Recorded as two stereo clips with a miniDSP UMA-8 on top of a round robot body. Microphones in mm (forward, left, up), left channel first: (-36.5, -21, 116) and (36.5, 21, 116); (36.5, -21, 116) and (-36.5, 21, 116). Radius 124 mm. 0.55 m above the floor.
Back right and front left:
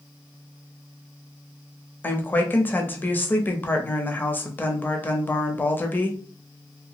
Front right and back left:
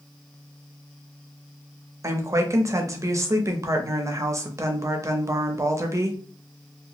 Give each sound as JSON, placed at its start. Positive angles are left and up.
{"t": 2.0, "sound": "a woman speaking", "azimuth_deg": 160, "distance_m": 0.7}